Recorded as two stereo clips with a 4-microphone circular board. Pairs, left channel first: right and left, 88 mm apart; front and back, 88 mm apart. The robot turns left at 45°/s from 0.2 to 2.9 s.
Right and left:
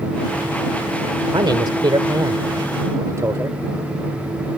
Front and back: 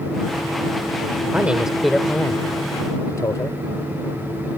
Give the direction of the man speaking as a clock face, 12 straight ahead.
8 o'clock.